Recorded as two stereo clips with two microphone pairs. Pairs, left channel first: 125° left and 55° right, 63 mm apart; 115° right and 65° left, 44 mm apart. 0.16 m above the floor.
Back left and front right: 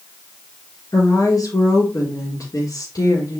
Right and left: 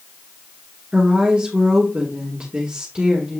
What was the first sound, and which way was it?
A woman speaking, 130° left.